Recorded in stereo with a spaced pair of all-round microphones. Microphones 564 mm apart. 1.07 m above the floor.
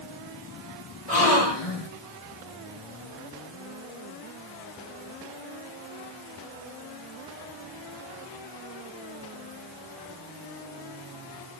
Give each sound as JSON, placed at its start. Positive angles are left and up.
{"t": 1.1, "sound": "a gasp", "side_deg": 70, "distance_m": 1.9}